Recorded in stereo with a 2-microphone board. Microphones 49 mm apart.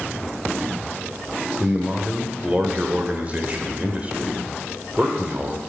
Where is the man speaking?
30° right (ahead or behind), 1.2 m.